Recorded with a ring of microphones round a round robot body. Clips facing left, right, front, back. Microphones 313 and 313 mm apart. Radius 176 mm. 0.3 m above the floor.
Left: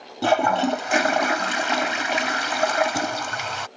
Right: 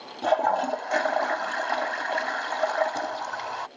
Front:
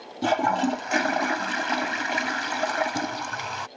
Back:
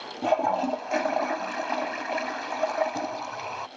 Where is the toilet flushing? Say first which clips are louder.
Left 5 dB, front 2 dB; 55° left.